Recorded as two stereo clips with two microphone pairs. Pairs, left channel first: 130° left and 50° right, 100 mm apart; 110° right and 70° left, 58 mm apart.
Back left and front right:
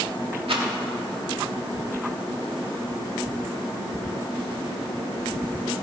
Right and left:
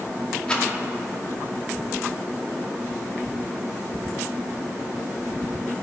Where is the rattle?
40° right, 2 m.